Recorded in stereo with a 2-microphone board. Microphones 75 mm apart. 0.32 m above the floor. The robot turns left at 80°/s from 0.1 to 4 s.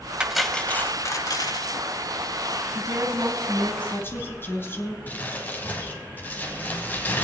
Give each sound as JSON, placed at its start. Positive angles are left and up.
{"t": 0.2, "sound": "cutlery clinking", "azimuth_deg": -165, "distance_m": 1.1}
{"t": 2.7, "sound": "a woman speaking", "azimuth_deg": -110, "distance_m": 2.5}
{"t": 5.1, "sound": "crumpling", "side_deg": 25, "distance_m": 2.5}